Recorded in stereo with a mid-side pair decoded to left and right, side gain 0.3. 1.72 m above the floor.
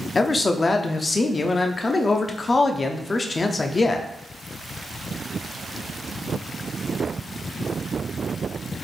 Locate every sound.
0.1 s a man speaking: 45° left, 0.6 m